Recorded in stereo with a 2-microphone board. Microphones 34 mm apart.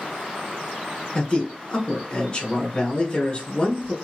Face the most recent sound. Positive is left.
turn(degrees=25)  # may be behind; listen again after turning